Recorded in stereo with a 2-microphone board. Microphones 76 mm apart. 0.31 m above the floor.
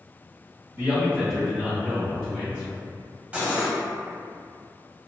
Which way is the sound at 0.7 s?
30° right (ahead or behind).